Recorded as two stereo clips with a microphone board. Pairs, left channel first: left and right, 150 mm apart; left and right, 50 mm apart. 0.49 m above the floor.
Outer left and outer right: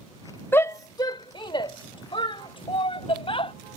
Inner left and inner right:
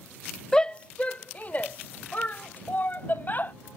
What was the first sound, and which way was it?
A shout, 15° left (ahead or behind).